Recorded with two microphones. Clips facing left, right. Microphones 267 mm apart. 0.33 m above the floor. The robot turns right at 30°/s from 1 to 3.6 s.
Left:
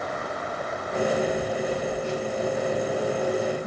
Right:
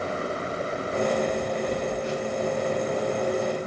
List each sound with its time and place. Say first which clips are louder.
1.7 s a phone buzzing: even; 30° right, 0.6 m; by 3.7 s 25° left, 0.6 m